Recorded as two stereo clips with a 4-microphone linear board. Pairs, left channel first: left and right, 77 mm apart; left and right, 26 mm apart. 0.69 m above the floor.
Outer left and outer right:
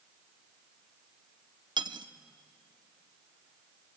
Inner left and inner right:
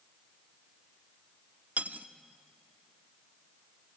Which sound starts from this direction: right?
Cutlery clinking, at 1.8 s.